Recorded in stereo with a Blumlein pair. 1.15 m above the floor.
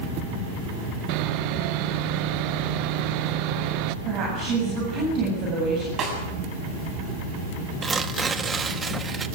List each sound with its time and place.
1.1 s sawing: 45° right, 0.8 m
4.0 s a woman speaking: 35° right, 8 m
6.0 s a snare drum: 25° right, 7.5 m
7.8 s tearing paper: 15° right, 1.1 m